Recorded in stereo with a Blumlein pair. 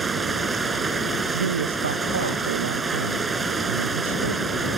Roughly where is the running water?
Ahead.